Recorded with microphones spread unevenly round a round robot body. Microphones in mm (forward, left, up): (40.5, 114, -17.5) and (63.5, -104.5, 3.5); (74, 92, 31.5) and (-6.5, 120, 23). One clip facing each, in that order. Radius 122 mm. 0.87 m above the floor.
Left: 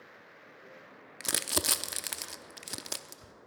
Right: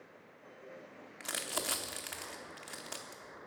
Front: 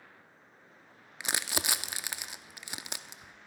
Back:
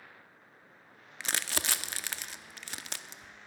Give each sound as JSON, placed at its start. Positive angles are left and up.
{"t": 1.2, "sound": "crumpling", "azimuth_deg": 60, "distance_m": 0.7}